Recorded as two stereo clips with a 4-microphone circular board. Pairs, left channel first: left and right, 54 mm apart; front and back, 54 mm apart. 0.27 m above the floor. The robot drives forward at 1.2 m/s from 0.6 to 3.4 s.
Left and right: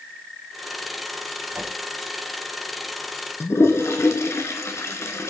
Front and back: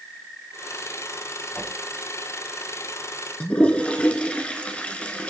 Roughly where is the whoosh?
Ahead right.